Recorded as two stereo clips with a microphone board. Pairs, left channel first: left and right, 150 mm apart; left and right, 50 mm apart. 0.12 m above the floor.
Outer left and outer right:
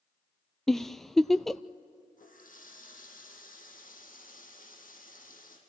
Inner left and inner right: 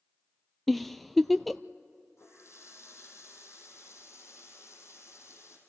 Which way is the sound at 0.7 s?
Centre (ahead or behind).